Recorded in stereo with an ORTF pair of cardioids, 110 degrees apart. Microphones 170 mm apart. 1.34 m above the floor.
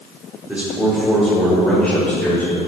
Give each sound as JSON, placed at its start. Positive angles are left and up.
{"t": 0.5, "sound": "a man speaking", "azimuth_deg": -10, "distance_m": 4.0}